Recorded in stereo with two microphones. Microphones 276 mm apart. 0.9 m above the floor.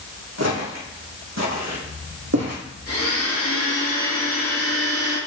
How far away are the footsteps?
About 3 m.